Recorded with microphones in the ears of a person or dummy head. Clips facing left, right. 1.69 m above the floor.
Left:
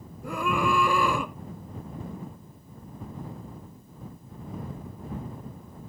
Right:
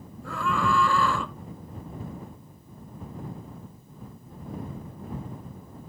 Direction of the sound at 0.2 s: 20° left (ahead or behind).